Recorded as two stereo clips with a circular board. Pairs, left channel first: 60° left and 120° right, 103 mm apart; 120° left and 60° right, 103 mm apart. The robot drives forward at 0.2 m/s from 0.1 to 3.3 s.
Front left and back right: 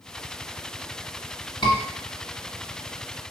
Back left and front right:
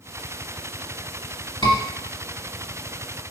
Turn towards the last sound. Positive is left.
turn(degrees=105)